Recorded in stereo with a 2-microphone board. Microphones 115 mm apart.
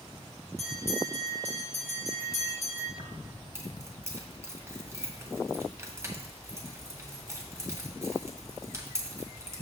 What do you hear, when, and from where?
0.6 s a bell: 70° right (ahead or behind), 4 m
3.0 s keys jangling: 25° right (ahead or behind), 1.7 m